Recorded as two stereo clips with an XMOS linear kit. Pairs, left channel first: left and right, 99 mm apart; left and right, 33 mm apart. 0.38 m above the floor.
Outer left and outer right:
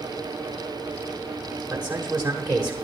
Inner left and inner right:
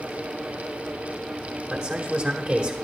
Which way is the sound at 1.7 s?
20° right (ahead or behind).